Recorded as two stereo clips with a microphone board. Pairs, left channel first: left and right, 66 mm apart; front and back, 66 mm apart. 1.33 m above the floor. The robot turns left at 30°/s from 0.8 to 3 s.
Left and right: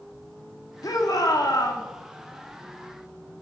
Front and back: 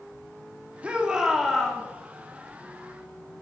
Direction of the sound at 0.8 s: 110° left.